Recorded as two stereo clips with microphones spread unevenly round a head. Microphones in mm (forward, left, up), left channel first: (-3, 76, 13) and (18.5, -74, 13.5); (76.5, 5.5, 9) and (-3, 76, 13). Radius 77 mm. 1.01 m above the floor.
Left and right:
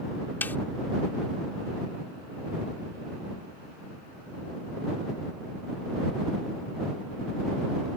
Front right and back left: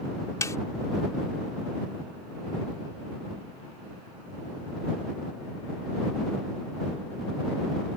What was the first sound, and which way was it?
A snare drum, 20° left.